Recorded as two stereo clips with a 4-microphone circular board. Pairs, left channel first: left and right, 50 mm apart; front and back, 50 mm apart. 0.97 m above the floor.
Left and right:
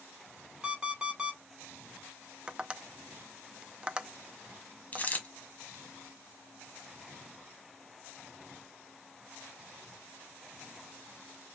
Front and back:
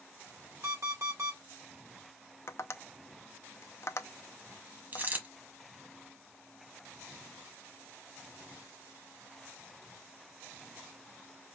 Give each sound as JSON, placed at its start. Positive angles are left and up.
{"t": 0.6, "sound": "an alarm clock", "azimuth_deg": -160, "distance_m": 2.5}
{"t": 2.5, "sound": "tapping", "azimuth_deg": -20, "distance_m": 0.5}
{"t": 4.9, "sound": "a dropped coin", "azimuth_deg": 135, "distance_m": 1.2}